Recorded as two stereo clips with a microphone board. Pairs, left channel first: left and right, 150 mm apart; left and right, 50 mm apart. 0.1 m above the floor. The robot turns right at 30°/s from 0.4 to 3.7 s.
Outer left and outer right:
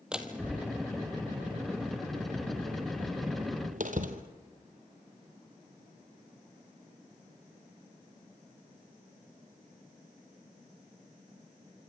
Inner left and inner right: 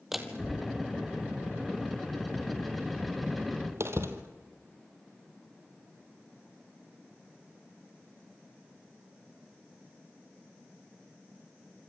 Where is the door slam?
5° right (ahead or behind), 2 m; by 4.2 s 65° right (ahead or behind), 2 m.